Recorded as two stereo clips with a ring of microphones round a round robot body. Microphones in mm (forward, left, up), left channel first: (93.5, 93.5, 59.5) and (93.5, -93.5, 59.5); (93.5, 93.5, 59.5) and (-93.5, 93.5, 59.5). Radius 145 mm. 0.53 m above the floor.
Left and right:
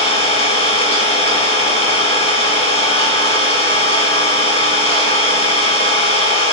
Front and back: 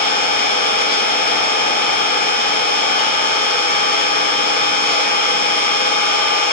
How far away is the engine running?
About 4 m.